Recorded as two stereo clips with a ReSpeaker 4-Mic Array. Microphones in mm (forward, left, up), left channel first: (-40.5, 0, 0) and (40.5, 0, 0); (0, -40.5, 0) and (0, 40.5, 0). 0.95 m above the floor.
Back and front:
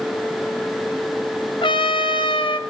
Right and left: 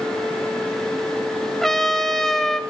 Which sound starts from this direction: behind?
A trumpet, at 1.6 s.